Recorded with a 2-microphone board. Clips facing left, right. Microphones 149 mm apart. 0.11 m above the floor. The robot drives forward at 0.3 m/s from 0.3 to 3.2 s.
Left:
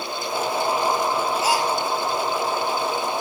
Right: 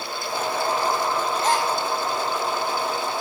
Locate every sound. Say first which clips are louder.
1.4 s a gasp: right 1 dB; 5° left (ahead or behind), 1.3 m